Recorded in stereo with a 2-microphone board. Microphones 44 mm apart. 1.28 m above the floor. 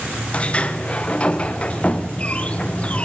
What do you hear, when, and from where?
0.3 s a sliding door: 25° left (ahead or behind), 1.0 m